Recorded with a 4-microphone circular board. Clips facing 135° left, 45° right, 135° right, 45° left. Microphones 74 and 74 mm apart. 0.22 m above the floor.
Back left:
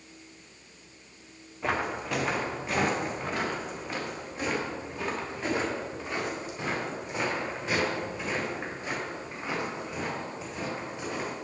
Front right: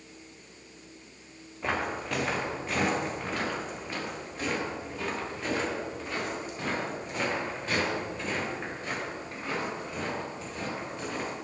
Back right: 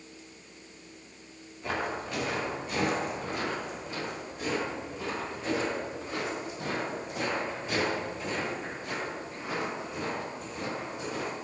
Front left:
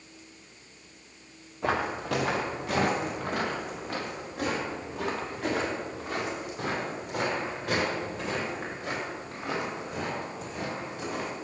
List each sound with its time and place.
1.6 s footsteps: 50° left, 2.5 m